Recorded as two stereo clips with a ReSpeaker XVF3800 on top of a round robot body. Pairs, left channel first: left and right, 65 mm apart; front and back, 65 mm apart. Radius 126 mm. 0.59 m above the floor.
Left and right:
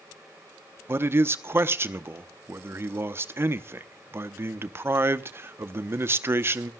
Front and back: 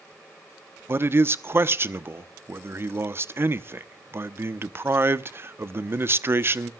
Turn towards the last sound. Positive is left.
turn(degrees=-135)